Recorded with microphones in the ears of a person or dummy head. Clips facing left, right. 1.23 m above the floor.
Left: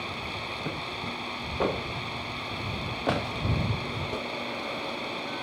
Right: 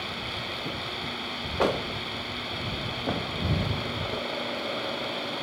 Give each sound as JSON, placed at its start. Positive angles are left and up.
{"t": 0.0, "sound": "a fan", "side_deg": -10}